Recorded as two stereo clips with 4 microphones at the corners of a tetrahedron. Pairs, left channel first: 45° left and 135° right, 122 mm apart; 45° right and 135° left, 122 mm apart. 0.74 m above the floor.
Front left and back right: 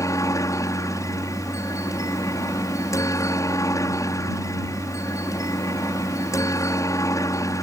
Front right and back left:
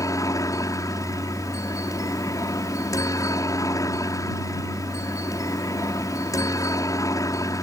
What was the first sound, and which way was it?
A helicopter, straight ahead.